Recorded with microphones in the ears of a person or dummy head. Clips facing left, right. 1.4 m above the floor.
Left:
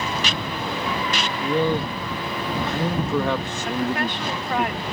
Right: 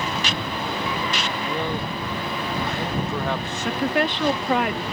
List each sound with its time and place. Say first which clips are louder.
1.4 s a man speaking: left 9 dB; 80° left; by 4.7 s 55° left (ahead or behind)
3.6 s a woman speaking: right 2 dB; 65° right (ahead or behind)